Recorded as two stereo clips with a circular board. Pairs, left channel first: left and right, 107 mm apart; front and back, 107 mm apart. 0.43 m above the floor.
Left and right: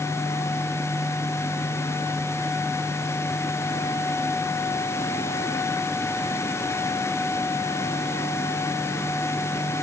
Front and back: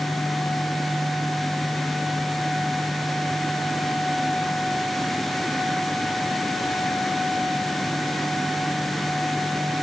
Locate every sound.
Only background noise.